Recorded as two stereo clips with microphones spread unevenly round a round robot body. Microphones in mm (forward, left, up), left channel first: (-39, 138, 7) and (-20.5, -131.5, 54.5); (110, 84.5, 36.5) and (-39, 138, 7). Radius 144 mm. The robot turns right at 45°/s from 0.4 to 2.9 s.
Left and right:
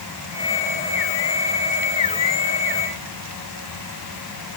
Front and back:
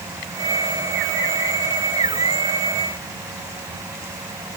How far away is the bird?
I don't hear a bird.